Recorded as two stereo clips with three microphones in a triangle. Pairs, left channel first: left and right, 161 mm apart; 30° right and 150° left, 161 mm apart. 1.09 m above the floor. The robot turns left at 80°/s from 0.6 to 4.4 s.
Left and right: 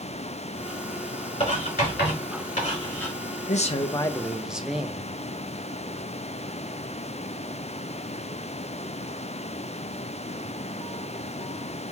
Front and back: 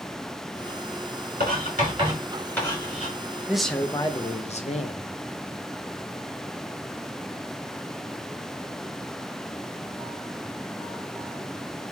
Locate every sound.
1.4 s writing: 145° left, 3 m; by 3.2 s 5° left, 3 m
3.5 s a man speaking: 70° left, 0.6 m; by 5.1 s 5° right, 0.6 m